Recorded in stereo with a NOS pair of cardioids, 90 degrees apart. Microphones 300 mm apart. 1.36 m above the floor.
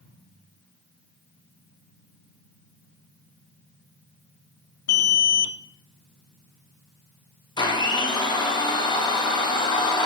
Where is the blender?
15° left, 1.2 m.